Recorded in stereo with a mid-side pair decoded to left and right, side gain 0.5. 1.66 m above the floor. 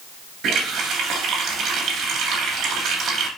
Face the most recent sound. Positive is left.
turn(degrees=-65)